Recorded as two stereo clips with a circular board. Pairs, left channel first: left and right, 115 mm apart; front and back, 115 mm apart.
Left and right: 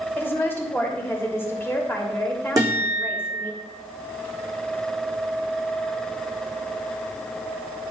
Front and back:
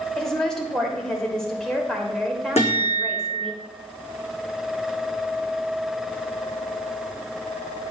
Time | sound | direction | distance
0.2 | a woman speaking | 75° left | 1.4 m
2.6 | a guitar | 30° right | 3.5 m